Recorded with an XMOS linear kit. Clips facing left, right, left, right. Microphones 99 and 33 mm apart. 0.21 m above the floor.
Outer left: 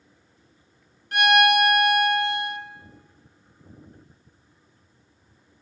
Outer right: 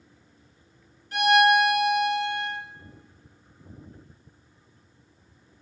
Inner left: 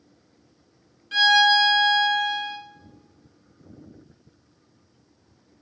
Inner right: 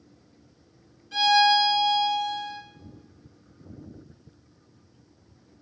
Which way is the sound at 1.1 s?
65° left (ahead or behind).